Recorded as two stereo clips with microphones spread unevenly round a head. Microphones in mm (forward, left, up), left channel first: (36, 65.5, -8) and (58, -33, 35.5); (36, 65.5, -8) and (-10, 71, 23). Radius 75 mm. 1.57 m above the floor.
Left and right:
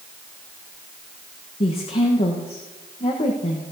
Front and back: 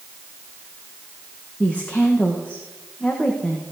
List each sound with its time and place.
1.6 s a woman speaking: 70° left, 1.3 m